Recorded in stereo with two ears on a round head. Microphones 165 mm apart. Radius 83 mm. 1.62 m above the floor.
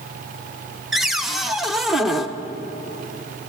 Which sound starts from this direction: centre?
A cupboard door, at 0.9 s.